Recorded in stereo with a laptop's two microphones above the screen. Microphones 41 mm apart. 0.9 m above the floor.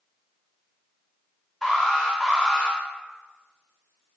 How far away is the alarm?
About 1.0 m.